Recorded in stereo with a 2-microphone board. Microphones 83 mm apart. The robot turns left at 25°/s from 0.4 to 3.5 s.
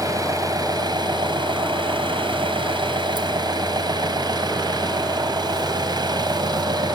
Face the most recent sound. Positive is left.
turn(degrees=-125)